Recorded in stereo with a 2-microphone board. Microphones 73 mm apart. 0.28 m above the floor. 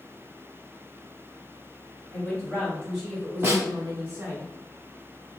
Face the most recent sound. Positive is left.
turn(degrees=-35)  # may be behind; listen again after turning